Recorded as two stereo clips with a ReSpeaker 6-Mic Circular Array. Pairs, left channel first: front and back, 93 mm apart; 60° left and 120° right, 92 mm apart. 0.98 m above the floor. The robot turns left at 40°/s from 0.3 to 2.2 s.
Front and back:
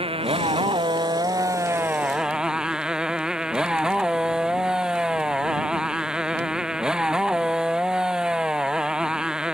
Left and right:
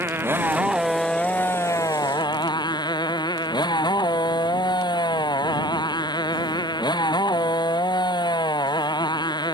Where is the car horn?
I don't hear a car horn.